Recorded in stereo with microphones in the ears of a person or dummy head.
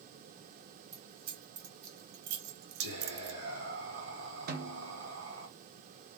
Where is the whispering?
60° right (ahead or behind), 1.9 m.